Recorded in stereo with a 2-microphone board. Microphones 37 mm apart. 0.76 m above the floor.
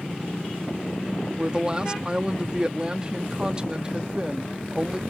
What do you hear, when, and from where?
1.4 s a woman speaking: 25° right (ahead or behind)